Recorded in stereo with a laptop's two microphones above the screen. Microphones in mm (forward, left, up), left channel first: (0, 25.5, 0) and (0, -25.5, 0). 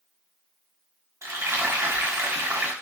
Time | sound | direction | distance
1.2 | frying | 60° right (ahead or behind) | 1.3 m